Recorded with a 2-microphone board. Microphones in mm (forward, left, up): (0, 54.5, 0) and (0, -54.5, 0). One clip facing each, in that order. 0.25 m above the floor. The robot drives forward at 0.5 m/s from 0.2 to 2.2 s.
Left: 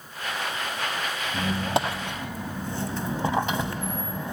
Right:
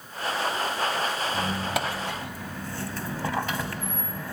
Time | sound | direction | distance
1.3 | a squeak | 30° left (ahead or behind) | 0.6 m